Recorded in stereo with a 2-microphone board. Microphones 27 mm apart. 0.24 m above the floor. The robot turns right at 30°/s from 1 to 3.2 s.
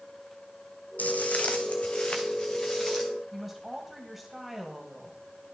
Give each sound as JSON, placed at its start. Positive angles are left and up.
{"t": 1.0, "sound": "footsteps", "side_deg": 60, "distance_m": 0.8}
{"t": 3.3, "sound": "a woman speaking", "side_deg": 0, "distance_m": 1.6}